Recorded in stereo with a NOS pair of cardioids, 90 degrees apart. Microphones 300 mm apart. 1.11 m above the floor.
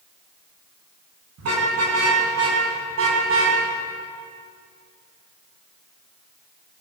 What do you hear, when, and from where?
1.4 s a car horn: 60° right, 6 m; by 3.6 s 45° right, 4.5 m